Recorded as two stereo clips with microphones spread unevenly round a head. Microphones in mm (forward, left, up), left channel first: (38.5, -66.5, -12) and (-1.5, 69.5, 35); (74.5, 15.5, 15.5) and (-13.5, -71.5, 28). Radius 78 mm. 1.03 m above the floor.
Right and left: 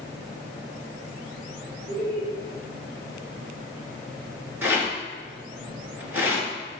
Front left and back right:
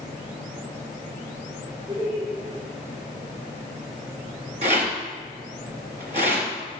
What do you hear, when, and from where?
1.9 s laughter: 165° left, 4.5 m
4.6 s a rattle: 175° left, 3 m